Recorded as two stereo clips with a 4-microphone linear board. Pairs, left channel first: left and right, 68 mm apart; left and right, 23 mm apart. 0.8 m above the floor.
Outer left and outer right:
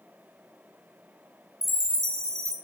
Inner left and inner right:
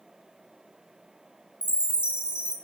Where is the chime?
55° right (ahead or behind), 1.6 m.